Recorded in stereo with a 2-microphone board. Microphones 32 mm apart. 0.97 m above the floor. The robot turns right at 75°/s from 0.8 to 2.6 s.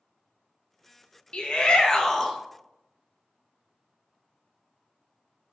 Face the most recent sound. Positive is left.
turn(degrees=-170)